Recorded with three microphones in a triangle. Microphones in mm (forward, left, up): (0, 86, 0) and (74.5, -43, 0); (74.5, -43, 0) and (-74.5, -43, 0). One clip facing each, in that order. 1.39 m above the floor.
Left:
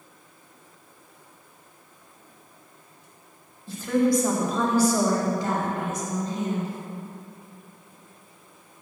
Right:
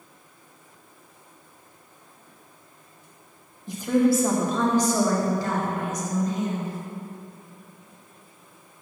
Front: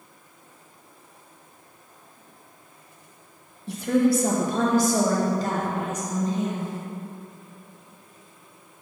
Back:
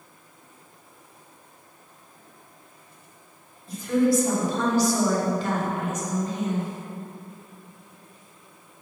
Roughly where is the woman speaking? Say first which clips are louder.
Right 1 dB, front 1 dB; ahead.